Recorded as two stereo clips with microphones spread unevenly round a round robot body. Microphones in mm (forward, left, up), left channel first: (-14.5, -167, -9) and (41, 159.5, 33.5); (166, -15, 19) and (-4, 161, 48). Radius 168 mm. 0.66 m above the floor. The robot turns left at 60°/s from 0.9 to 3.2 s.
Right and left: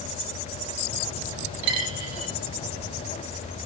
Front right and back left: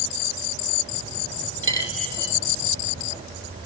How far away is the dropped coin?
About 2 m.